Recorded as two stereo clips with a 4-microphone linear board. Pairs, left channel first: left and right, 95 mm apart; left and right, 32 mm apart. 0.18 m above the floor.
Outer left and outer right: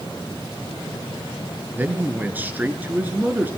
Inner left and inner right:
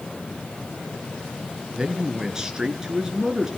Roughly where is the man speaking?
Centre.